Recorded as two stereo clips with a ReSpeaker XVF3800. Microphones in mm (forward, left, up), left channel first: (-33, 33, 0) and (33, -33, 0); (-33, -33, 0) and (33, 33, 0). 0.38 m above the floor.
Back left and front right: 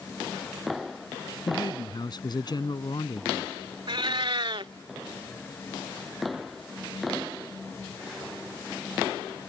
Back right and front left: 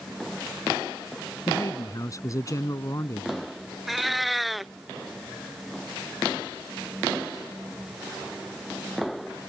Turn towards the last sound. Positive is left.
turn(degrees=-45)